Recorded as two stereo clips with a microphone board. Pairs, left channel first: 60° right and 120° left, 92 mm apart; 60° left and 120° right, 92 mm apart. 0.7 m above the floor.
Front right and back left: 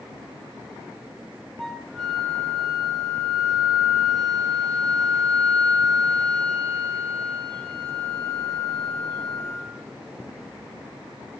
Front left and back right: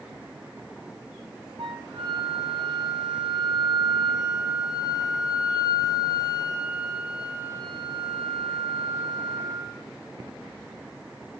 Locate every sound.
1.6 s a flute: 145° right, 2.5 m